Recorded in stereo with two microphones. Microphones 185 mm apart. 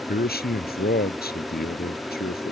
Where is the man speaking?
65° left (ahead or behind).